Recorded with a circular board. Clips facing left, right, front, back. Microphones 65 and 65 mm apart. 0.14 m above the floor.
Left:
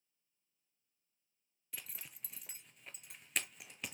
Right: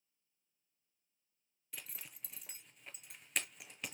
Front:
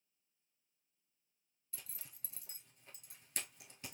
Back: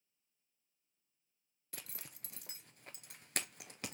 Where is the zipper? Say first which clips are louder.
Even, back 6 dB; straight behind, 0.6 m.